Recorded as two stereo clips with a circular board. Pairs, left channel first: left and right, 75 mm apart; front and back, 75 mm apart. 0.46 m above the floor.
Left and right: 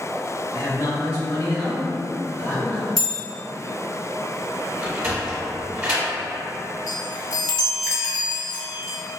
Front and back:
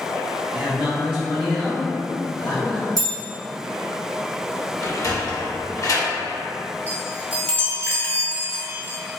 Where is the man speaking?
120° left, 1.7 m; by 2.9 s 40° left, 1.4 m.